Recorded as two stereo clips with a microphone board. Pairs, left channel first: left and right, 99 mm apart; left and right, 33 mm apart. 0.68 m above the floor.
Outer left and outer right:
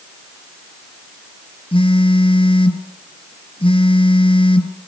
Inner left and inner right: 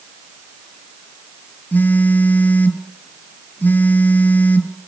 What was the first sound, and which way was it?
A phone buzzing, 65° left (ahead or behind).